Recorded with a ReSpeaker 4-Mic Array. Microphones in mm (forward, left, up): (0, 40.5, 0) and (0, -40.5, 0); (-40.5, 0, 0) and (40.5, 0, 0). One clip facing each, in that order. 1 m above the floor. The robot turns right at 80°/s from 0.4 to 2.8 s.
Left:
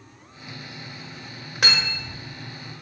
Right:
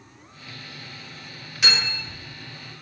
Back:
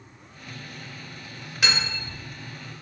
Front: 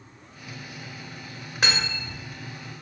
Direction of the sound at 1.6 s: 50° left.